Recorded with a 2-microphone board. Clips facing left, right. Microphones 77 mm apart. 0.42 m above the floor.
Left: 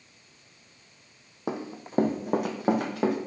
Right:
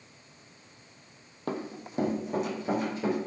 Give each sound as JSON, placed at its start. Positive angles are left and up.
{"t": 1.5, "sound": "running footsteps", "side_deg": 15, "distance_m": 0.6}